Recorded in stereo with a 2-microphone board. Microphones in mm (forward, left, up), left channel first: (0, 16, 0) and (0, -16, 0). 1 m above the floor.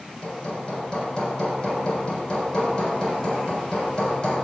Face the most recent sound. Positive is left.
turn(degrees=30)  # may be behind; listen again after turning